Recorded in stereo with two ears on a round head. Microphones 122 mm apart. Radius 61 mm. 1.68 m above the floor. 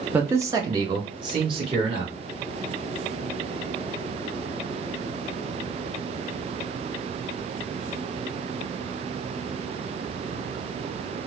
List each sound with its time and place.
0.1 s a man speaking: 15° right (ahead or behind), 0.5 m; by 2.1 s 40° right (ahead or behind), 1.5 m